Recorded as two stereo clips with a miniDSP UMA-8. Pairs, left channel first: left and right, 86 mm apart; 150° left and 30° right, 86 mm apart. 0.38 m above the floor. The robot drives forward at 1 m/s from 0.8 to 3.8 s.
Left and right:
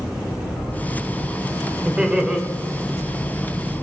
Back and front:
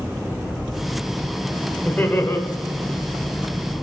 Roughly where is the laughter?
Behind right.